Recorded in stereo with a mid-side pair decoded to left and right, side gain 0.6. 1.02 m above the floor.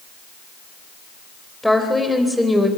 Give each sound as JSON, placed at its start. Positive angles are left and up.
{"t": 1.6, "sound": "a woman speaking", "azimuth_deg": 5, "distance_m": 4.0}